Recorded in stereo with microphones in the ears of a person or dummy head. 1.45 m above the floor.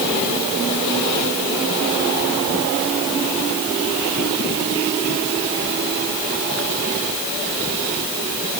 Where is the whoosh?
I don't hear a whoosh.